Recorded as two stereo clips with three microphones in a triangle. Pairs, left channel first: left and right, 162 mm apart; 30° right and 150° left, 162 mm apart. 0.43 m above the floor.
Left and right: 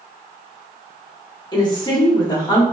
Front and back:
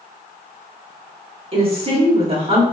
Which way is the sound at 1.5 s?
130° left.